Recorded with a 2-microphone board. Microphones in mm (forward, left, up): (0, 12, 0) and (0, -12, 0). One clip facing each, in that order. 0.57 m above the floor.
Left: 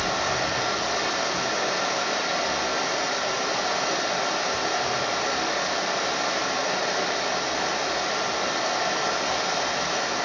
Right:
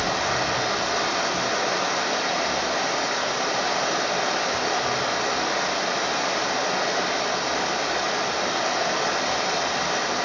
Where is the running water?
20° right (ahead or behind), 0.8 m.